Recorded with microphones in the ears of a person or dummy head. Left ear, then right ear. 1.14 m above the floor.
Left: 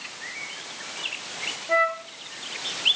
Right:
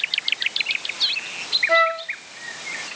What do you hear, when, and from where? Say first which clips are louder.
1.7 s a flute: right 2 dB; 35° right (ahead or behind), 1.1 m